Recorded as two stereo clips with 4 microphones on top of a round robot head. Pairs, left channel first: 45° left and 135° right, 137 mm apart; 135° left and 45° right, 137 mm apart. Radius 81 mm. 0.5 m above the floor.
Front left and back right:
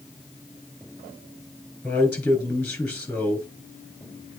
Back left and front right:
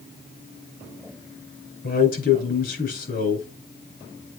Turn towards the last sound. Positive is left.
turn(degrees=125)